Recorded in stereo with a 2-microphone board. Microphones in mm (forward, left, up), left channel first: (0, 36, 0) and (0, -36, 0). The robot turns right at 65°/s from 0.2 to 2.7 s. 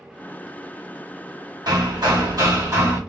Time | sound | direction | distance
1.7 | hammering | 110° right | 1.6 m